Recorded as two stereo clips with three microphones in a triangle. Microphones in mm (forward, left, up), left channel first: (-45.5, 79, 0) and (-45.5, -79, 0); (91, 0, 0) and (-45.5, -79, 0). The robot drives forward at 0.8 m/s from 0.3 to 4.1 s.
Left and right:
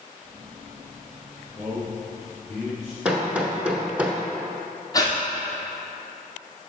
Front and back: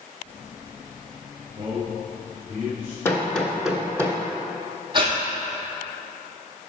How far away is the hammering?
About 1.2 m.